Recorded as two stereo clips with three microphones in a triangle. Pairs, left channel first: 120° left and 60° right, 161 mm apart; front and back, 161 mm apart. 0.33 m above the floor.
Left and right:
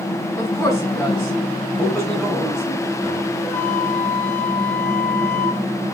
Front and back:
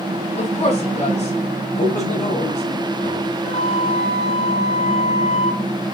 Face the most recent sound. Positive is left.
turn(degrees=45)